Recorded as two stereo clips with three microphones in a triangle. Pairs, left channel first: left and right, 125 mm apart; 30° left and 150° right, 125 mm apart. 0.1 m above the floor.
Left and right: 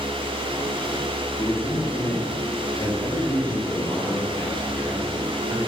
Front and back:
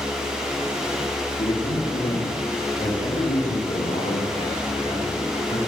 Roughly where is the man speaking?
Ahead left.